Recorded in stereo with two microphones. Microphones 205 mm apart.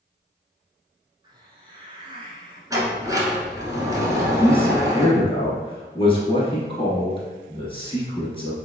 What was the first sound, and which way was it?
A hiss, 25° right (ahead or behind).